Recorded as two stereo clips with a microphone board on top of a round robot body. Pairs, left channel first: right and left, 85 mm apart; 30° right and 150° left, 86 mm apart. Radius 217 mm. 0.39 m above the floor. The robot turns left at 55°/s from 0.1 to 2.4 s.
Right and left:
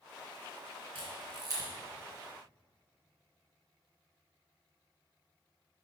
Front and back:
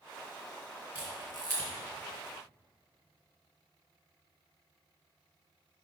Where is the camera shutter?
75° left, 1.7 m; by 1.7 s 35° left, 1.7 m.